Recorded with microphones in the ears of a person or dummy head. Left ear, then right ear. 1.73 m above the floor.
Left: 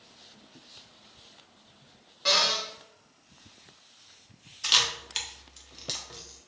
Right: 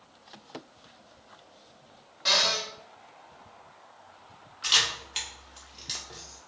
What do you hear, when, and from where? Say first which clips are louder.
2.2 s a cupboard door: even; 10° left (ahead or behind), 0.8 m
4.6 s a camera shutter: even; 5° left (ahead or behind), 0.5 m